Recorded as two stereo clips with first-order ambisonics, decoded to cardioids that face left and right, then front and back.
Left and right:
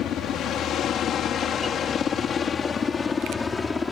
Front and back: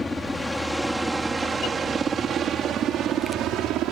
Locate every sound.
0.0 s a helicopter: 75° left; by 3.9 s 165° left